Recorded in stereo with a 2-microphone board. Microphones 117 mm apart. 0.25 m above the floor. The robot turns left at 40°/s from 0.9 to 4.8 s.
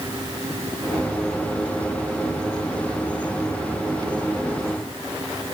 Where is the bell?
I don't hear a bell.